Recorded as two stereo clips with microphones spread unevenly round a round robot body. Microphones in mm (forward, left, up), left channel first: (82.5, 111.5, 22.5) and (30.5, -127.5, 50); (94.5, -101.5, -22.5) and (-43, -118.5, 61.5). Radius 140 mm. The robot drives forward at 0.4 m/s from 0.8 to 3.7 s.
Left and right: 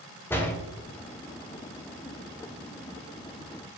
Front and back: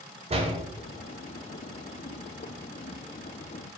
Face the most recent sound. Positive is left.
turn(degrees=170)